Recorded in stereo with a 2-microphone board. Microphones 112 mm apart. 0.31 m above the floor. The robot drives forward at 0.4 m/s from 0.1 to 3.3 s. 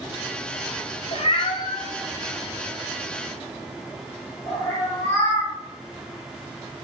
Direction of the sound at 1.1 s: 60° left (ahead or behind).